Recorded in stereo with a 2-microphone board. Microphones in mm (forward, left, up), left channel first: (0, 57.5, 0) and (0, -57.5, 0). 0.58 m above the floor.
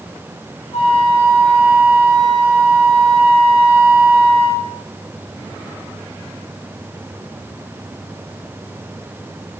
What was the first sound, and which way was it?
A flute, 70° left (ahead or behind).